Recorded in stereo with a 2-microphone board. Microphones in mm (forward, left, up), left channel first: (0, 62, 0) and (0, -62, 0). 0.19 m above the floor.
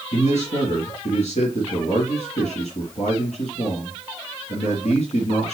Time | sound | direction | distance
0.1 | a man speaking | 70° left (ahead or behind) | 3.5 m